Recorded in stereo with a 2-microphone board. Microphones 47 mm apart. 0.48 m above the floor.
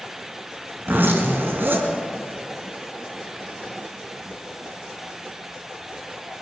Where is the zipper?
45° right (ahead or behind), 3.5 m.